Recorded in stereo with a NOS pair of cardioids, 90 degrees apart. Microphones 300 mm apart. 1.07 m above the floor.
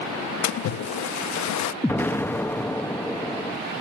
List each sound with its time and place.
0.4 s a splash: 70° left, 0.8 m
1.8 s an explosion: 5° left, 0.9 m